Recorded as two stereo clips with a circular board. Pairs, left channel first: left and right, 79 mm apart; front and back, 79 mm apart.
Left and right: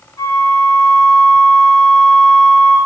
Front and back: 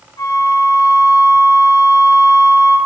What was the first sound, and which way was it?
A flute, 40° left.